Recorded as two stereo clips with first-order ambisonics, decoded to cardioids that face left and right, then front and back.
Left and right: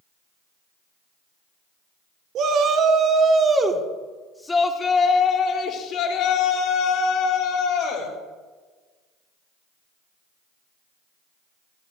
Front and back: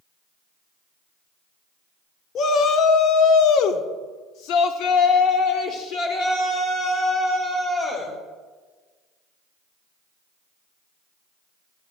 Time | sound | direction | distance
2.4 | a shout | 50° right | 1.4 m